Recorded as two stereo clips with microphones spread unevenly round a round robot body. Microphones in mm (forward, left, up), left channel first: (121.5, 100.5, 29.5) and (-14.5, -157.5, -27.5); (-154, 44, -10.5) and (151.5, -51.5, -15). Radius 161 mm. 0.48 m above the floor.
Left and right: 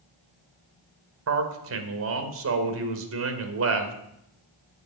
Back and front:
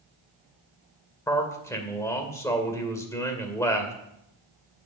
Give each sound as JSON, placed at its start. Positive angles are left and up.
{"t": 1.3, "sound": "a man speaking", "azimuth_deg": -120, "distance_m": 2.0}